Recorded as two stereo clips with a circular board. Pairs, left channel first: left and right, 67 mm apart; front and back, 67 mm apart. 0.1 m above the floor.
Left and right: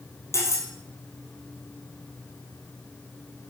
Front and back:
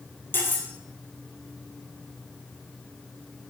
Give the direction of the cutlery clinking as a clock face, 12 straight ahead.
10 o'clock.